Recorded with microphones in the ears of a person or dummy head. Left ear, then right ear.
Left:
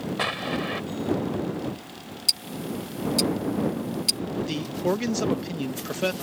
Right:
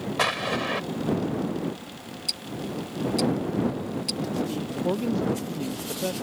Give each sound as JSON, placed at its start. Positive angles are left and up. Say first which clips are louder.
{"t": 0.2, "sound": "an explosion", "louder": "right 3 dB", "side_deg": -20}
{"t": 2.3, "sound": "ticking", "louder": "left 5 dB", "side_deg": 30}
{"t": 4.5, "sound": "a man speaking", "louder": "left 2 dB", "side_deg": 65}